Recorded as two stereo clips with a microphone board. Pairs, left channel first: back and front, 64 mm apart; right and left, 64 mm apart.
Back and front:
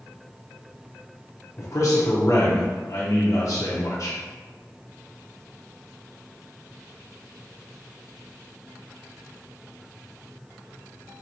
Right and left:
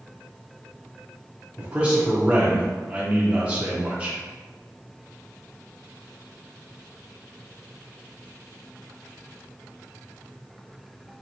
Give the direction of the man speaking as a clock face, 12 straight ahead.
7 o'clock.